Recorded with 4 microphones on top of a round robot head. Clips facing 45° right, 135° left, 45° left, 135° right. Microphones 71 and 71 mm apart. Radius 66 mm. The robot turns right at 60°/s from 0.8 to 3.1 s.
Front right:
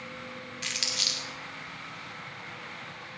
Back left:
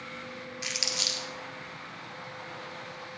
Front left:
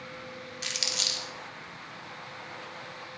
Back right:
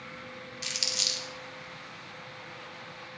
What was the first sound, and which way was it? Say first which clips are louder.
Crumpling: back left 1 dB, front left 2 dB; 60° left.